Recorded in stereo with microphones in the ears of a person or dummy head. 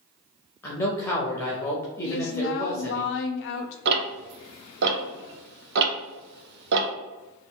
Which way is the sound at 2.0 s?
70° left (ahead or behind).